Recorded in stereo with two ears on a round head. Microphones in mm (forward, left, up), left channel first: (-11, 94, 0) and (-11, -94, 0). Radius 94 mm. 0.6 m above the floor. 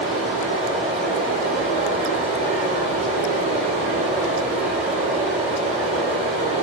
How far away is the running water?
About 2 m.